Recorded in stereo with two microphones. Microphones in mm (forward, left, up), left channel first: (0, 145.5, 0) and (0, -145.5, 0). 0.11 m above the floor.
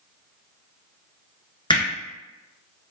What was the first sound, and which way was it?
Hammering, 15° left (ahead or behind).